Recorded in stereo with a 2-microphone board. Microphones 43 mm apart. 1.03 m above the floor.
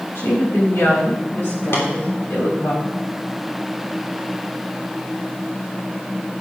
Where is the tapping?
75° left (ahead or behind), 3 m.